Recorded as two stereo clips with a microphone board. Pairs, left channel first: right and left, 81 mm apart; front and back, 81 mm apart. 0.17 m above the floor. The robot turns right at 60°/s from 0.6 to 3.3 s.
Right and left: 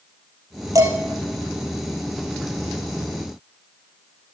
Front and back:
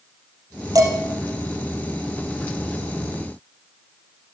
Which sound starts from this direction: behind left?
Dishes clattering, at 0.8 s.